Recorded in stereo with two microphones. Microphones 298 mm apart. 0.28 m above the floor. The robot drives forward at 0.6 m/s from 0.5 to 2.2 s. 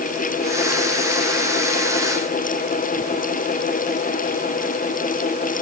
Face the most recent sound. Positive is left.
No sound to turn to.